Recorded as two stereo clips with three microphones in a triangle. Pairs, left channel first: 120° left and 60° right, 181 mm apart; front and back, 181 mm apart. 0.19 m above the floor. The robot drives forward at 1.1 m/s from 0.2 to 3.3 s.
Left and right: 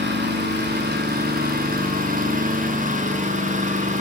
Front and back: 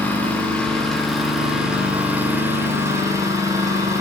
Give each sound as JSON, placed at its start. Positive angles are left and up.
{"t": 0.0, "sound": "an engine running", "azimuth_deg": -80, "distance_m": 7.5}